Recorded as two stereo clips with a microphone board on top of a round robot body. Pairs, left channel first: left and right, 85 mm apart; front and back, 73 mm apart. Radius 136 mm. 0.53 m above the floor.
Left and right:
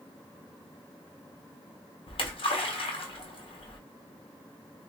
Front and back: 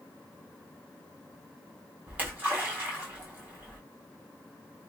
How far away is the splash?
About 1.4 m.